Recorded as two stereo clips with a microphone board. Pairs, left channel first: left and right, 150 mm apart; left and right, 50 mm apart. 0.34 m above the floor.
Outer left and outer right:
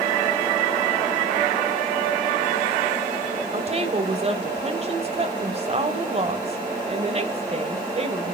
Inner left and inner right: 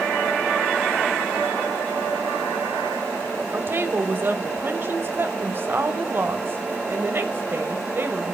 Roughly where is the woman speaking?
Right.